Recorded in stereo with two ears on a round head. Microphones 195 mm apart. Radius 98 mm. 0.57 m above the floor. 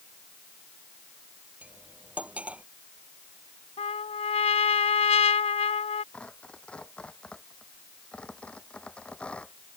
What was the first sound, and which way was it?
Cutlery clinking, 5° right (ahead or behind).